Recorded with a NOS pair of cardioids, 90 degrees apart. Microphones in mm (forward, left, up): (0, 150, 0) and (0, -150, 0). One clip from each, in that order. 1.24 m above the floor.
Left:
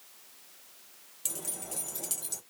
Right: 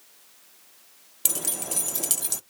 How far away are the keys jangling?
About 0.5 m.